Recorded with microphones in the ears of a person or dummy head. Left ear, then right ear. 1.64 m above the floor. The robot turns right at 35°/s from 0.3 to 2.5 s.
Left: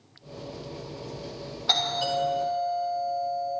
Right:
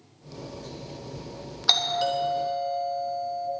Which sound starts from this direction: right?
A doorbell, at 1.7 s.